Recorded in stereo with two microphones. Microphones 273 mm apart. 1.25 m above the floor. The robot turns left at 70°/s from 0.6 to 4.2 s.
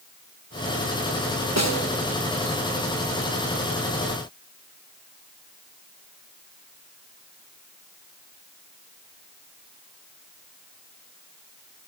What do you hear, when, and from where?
1.6 s a snare drum: 70° right (ahead or behind), 1.4 m; by 1.9 s 80° right, 1.4 m